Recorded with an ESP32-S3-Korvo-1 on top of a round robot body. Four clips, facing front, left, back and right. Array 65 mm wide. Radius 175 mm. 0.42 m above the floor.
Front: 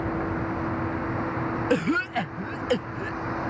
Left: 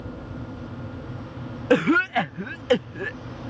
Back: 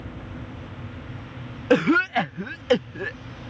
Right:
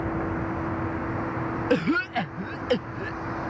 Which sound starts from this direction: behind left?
A cough, at 1.7 s.